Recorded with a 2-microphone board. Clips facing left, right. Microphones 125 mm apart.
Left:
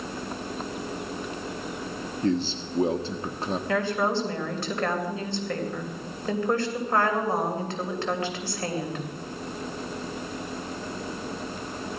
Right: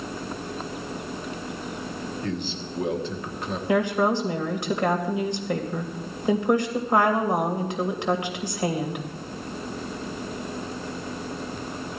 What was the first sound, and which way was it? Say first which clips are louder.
A man speaking: left 9 dB; 35° left (ahead or behind).